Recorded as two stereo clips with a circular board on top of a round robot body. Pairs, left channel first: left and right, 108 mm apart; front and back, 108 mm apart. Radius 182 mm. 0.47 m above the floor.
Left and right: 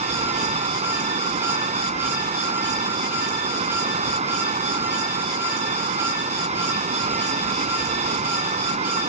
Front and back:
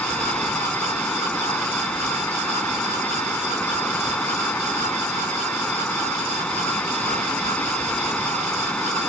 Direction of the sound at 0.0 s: 80° right.